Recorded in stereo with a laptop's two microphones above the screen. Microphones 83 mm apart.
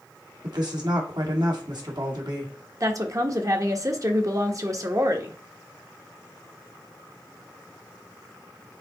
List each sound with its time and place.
0.4 s a woman speaking: 65° right (ahead or behind), 2 m
2.8 s a woman speaking: 40° right (ahead or behind), 1.3 m